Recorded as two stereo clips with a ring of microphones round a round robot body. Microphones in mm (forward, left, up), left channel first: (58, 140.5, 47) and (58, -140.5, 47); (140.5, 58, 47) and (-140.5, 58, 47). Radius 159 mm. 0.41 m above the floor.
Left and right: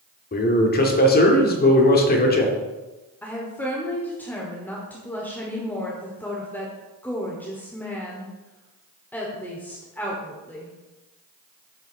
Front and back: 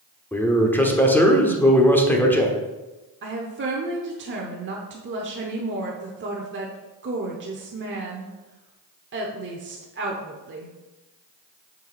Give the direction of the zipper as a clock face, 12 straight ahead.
I don't hear a zipper.